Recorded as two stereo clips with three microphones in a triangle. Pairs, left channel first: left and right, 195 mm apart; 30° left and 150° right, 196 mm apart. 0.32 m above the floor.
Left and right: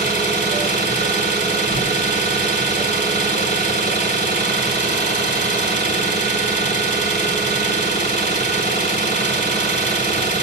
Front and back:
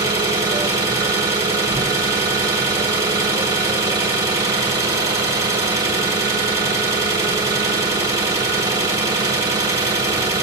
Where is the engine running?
140° left, 2.5 m.